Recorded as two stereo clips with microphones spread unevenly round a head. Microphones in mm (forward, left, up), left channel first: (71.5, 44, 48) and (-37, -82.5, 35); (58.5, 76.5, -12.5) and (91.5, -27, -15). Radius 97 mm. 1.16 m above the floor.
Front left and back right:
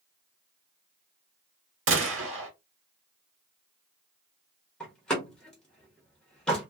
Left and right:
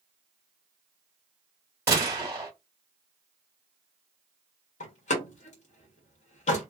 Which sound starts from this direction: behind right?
A gunshot, at 1.9 s.